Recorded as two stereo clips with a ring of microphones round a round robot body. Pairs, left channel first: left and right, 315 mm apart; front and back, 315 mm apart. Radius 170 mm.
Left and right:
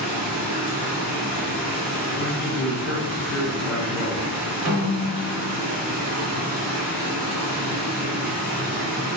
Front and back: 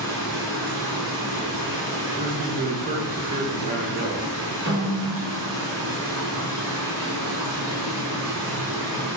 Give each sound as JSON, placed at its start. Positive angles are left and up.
{"t": 0.0, "sound": "running water", "azimuth_deg": -140, "distance_m": 1.6}
{"t": 2.2, "sound": "a man speaking", "azimuth_deg": 125, "distance_m": 0.6}
{"t": 4.7, "sound": "a snare drum", "azimuth_deg": -115, "distance_m": 1.5}